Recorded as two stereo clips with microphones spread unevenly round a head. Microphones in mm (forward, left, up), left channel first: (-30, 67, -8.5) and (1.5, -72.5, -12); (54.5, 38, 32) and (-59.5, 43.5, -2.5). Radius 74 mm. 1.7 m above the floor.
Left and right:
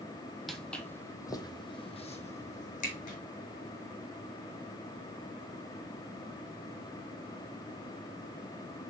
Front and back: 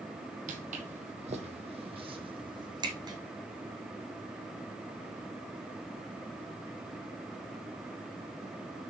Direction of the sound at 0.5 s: 170° right.